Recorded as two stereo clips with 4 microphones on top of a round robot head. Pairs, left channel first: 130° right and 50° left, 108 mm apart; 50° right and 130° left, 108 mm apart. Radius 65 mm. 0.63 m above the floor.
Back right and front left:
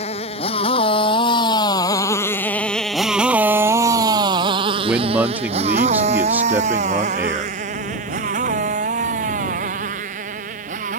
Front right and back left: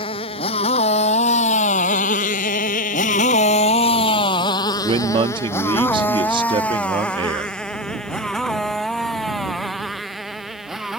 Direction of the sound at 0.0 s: 95° right.